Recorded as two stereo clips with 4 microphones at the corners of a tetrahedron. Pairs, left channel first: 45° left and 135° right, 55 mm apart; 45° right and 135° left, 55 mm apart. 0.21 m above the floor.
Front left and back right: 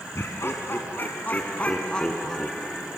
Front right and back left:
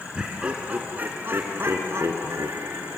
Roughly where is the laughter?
Ahead left.